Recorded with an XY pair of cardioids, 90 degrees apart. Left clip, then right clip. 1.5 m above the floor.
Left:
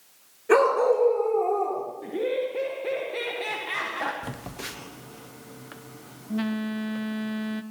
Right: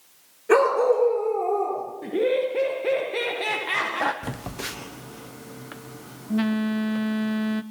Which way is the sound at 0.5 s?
Straight ahead.